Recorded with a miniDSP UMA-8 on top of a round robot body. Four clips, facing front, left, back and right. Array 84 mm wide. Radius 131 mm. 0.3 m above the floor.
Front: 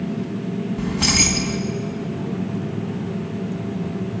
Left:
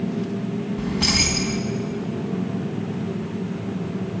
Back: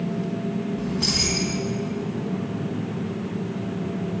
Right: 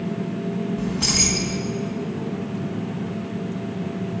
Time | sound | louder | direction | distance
0.8 | keys jangling | left 1 dB, front 4 dB | 20° left | 2 m